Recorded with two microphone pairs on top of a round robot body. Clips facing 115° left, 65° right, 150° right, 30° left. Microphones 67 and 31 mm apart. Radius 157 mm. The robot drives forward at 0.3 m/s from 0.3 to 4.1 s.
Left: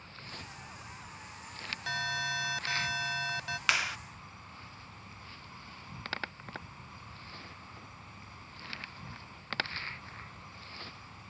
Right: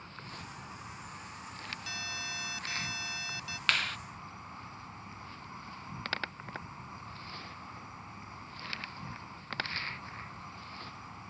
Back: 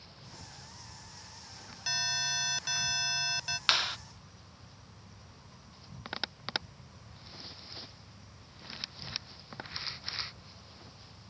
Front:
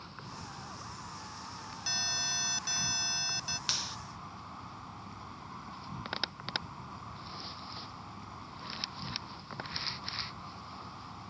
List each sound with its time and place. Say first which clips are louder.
0.0 s an insect: right 2 dB, front 6 dB; straight ahead
1.9 s an alarm: left 10 dB, back 2 dB; 140° left; by 3.6 s 145° left
3.7 s a clap: left 1 dB, back 10 dB; 170° right